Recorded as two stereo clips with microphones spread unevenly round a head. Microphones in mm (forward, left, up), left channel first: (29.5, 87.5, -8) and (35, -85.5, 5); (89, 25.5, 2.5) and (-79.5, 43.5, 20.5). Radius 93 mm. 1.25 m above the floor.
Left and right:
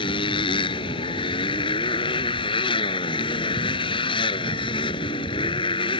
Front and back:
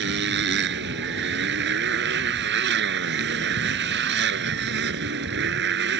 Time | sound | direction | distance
0.0 | a motorcycle | 160° left | ?